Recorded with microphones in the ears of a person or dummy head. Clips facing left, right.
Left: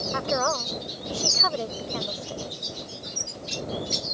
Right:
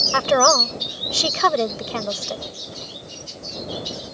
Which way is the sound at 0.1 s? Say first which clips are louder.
Right 10 dB; 85° right.